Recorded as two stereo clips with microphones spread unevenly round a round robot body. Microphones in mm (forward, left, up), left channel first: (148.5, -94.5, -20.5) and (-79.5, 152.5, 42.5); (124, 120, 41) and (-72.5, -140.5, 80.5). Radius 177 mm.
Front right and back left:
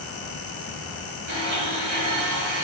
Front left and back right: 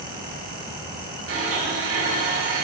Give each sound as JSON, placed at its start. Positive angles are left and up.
{"t": 1.3, "sound": "a blender", "azimuth_deg": 180, "distance_m": 5.0}